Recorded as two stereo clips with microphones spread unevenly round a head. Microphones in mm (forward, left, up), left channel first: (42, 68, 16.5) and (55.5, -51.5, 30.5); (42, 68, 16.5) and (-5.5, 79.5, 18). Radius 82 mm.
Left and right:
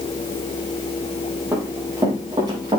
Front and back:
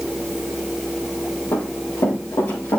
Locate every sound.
1.5 s running footsteps: 20° right, 5 m; by 2.8 s 35° right, 5.5 m